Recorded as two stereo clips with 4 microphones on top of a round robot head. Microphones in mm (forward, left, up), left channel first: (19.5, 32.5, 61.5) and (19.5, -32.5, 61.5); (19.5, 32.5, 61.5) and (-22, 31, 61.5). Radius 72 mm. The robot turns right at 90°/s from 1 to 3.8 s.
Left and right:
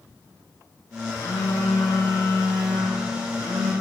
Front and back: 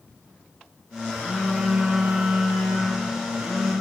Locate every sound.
1.1 s a phone buzzing: 40° left, 6.5 m; by 3.7 s 80° right, 6.5 m